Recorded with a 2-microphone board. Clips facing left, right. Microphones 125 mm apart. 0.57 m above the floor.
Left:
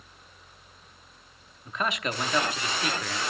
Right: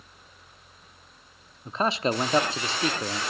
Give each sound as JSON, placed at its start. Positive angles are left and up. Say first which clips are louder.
{"t": 1.6, "sound": "a man speaking", "louder": "right 5 dB", "side_deg": -30, "distance_m": 0.8}